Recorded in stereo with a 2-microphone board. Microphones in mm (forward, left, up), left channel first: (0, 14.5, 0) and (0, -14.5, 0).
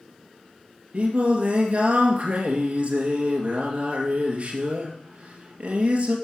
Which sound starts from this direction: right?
Singing, at 0.9 s.